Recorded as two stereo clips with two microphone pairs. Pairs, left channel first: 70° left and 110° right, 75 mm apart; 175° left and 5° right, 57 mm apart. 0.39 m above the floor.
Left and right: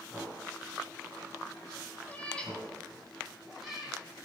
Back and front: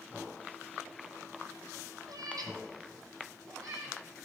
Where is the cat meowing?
5° right, 2 m; by 4.0 s 25° right, 4 m.